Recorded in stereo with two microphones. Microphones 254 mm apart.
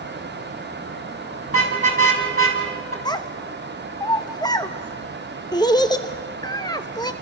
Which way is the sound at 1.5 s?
60° left (ahead or behind).